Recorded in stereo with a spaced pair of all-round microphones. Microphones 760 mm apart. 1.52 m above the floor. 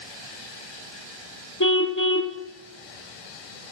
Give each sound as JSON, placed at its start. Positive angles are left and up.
{"t": 1.6, "sound": "a car horn", "side_deg": 25, "distance_m": 2.5}